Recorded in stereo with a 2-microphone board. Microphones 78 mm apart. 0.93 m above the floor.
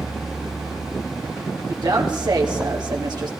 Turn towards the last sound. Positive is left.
turn(degrees=-65)  # may be behind; listen again after turning